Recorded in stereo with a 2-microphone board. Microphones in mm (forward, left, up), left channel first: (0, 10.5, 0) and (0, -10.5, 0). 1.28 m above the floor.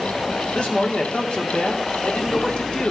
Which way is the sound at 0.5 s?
70° left (ahead or behind).